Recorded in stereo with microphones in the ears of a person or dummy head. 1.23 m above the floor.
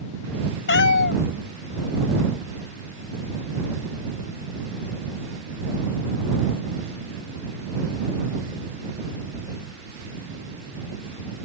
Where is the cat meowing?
70° left (ahead or behind).